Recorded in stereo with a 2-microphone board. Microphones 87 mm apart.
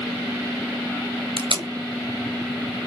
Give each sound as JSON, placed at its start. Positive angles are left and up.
{"t": 1.4, "sound": "tape being pulled", "side_deg": -80, "distance_m": 0.7}